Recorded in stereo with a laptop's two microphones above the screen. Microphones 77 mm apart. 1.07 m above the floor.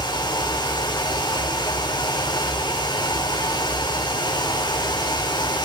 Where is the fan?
85° left, 2 m.